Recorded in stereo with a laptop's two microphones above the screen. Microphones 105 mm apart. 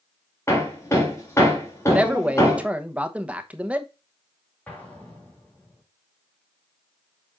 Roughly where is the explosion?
Centre.